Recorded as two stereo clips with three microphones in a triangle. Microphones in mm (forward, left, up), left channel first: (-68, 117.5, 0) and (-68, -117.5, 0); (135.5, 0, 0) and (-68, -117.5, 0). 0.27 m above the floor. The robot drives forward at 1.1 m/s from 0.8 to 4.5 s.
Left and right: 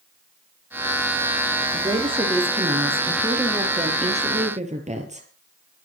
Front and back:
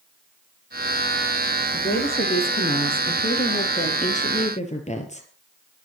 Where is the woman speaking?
20° right, 8 m; by 5.3 s 30° right, 5 m.